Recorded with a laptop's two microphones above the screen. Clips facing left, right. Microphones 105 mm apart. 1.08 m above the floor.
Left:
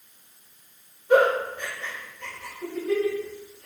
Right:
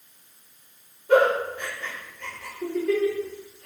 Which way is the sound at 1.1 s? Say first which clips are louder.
Even; 65° right (ahead or behind).